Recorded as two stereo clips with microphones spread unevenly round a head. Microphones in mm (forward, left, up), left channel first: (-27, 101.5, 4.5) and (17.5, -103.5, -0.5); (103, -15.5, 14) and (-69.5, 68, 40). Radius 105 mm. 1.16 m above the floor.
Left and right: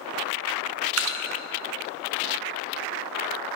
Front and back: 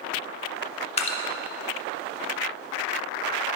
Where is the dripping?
80° right, 0.7 m.